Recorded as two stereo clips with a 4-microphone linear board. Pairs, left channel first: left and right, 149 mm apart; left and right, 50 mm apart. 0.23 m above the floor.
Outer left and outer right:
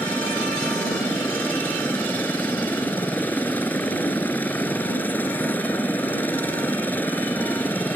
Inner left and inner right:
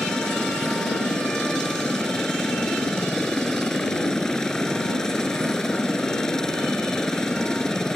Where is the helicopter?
10° left (ahead or behind).